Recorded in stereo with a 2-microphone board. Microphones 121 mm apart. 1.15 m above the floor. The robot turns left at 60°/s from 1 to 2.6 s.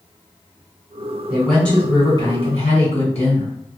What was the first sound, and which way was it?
A woman speaking, 165° right.